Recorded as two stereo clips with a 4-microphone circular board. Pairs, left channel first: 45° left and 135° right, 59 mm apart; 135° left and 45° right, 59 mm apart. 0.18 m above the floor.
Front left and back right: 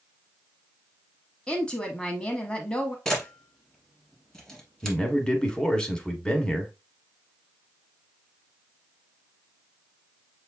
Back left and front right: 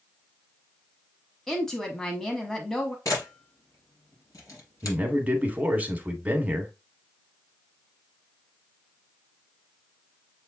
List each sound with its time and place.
1.5 s a woman speaking: 65° left, 1.0 m
3.0 s a camera shutter: 120° left, 3 m
4.8 s a man speaking: 15° right, 1.1 m